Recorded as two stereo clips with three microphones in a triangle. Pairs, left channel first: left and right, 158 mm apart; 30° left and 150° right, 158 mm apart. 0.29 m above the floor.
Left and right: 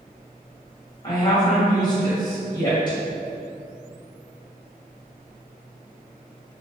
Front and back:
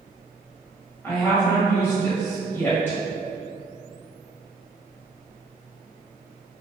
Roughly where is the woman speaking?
Left.